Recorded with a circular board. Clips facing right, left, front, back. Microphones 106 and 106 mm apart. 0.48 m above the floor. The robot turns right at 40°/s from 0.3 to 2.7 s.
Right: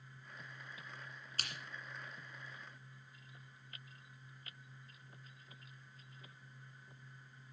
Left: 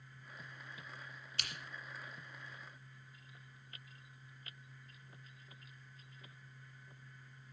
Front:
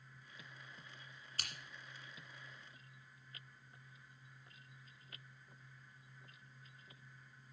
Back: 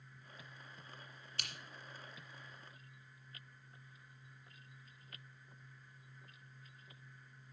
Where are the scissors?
45° right, 2.0 m; by 1.5 s 40° right, 2.0 m.